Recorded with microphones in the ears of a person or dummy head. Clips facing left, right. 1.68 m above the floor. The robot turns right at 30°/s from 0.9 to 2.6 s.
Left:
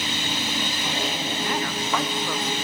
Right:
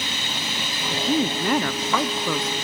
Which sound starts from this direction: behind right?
A woman speaking, at 0.9 s.